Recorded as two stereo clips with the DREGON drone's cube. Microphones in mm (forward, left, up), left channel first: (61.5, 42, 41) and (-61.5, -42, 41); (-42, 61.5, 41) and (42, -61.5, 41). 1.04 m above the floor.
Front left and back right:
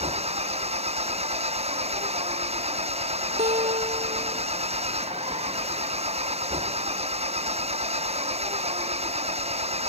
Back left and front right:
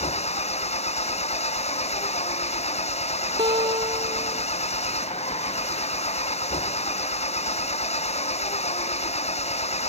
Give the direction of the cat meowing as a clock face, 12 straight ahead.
No cat meowing in this recording.